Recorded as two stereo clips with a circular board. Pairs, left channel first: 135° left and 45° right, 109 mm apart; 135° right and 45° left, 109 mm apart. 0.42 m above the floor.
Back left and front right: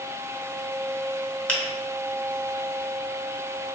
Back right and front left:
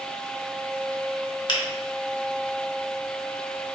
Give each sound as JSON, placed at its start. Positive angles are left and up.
{"t": 1.5, "sound": "a finger snap", "azimuth_deg": -150, "distance_m": 0.8}